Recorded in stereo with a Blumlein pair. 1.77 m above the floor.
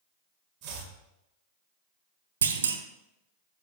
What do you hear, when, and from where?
0.6 s chopping: 40° right, 1.7 m
2.4 s a clunk: 70° right, 0.7 m